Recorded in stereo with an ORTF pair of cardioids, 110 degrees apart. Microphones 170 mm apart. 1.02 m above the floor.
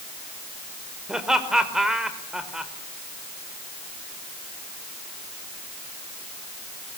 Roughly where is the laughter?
Ahead.